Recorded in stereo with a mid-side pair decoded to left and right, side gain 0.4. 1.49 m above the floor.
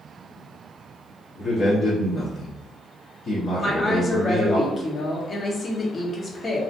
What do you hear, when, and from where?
1.4 s a man speaking: 55° left, 1.1 m
3.6 s a woman speaking: 40° left, 1.1 m